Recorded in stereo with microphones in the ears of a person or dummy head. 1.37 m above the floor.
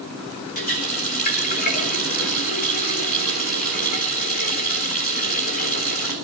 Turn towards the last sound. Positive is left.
turn(degrees=45)  # may be behind; listen again after turning